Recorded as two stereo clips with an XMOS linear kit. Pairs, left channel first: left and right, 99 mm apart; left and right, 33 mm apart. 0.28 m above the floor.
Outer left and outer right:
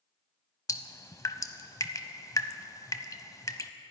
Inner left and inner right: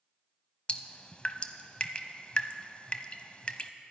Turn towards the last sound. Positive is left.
turn(degrees=35)  # may be behind; listen again after turning